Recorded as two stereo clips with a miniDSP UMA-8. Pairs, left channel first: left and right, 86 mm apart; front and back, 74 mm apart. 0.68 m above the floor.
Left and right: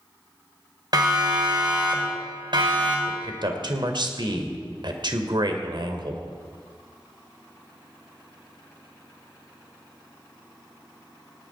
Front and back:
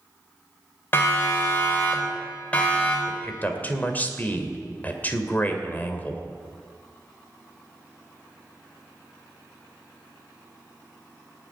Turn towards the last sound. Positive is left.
turn(degrees=-65)